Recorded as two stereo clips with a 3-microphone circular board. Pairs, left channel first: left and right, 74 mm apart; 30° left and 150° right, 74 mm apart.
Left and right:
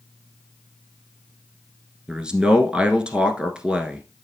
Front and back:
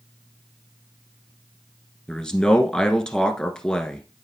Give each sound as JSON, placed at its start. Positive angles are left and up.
{"t": 2.1, "sound": "a man speaking", "azimuth_deg": -35, "distance_m": 1.1}